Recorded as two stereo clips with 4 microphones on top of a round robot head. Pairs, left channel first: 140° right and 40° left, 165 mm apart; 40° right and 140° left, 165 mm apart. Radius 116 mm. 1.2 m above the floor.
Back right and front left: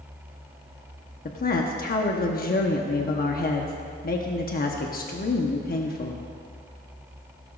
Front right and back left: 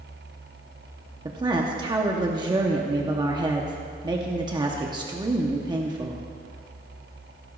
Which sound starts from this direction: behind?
A woman speaking, at 1.2 s.